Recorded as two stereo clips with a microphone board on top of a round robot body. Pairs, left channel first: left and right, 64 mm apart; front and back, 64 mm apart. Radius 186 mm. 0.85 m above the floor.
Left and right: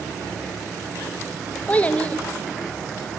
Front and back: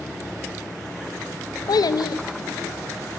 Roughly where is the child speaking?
Ahead.